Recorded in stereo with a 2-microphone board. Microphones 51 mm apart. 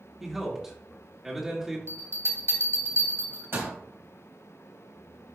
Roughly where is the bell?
Right.